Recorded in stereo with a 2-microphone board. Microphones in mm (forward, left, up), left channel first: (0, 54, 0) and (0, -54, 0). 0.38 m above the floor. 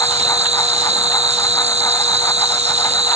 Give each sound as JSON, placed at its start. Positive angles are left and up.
{"t": 0.0, "sound": "an insect", "side_deg": -85}